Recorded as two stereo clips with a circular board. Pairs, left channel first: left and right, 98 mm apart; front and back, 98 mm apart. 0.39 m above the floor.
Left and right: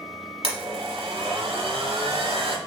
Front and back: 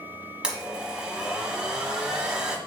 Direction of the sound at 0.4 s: 100° right.